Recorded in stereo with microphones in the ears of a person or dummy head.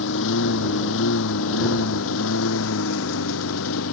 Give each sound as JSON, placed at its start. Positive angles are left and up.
{"t": 0.0, "sound": "a lawn mower", "side_deg": 75}